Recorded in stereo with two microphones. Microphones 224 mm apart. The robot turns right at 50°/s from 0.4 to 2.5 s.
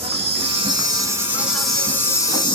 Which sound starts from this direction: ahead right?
An insect, at 0.0 s.